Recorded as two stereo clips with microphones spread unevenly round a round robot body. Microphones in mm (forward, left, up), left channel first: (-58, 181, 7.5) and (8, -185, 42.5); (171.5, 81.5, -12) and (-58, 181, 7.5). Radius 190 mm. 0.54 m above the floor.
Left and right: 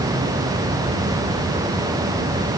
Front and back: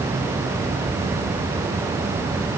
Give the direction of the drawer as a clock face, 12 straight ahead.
I don't hear a drawer.